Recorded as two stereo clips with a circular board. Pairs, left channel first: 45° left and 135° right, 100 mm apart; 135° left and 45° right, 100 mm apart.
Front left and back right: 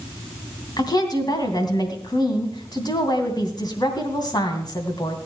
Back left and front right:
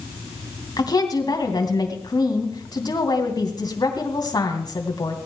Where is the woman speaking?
90° left, 2.5 m.